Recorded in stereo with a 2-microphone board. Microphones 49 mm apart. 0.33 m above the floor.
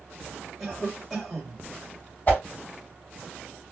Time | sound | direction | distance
0.6 | a cough | 5° right (ahead or behind) | 1.8 m
2.3 | a whoosh | 40° left (ahead or behind) | 1.9 m